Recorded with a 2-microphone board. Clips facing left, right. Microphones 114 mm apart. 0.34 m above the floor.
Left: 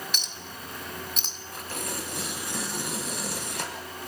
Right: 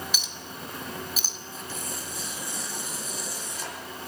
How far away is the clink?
About 1.6 m.